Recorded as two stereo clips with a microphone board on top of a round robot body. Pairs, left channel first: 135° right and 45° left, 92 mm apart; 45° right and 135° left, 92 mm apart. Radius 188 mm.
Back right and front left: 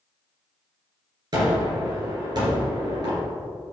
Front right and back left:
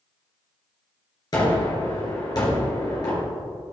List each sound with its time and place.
1.3 s a gunshot: straight ahead, 3 m